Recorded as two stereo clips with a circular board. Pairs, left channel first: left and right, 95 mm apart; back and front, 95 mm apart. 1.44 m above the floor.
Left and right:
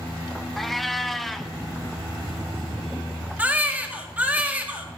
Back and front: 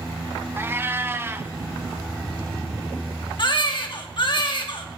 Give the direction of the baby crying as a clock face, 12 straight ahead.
5 o'clock.